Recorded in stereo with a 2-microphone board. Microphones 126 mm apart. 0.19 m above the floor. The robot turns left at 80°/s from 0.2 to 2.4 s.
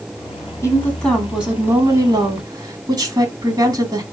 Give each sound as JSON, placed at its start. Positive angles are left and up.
{"t": 0.6, "sound": "a woman speaking", "azimuth_deg": 50, "distance_m": 1.3}